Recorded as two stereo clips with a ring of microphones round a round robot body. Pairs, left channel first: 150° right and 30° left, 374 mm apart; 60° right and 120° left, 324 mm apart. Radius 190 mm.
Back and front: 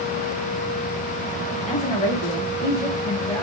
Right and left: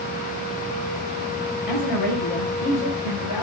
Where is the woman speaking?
75° right, 5 m; by 3.4 s 65° right, 4.5 m.